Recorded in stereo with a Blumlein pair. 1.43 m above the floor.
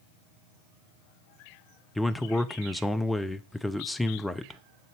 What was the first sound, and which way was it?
A man speaking, 5° left.